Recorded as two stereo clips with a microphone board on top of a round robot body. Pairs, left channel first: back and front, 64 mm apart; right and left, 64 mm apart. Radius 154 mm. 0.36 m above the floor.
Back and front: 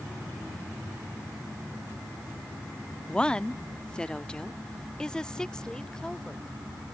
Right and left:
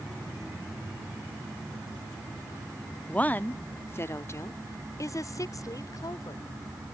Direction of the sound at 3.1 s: 125° right.